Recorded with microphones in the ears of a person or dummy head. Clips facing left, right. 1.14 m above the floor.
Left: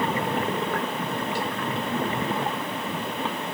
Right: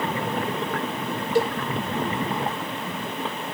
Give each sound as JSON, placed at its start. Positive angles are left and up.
{"t": 1.4, "sound": "a cowbell", "side_deg": -35, "distance_m": 1.0}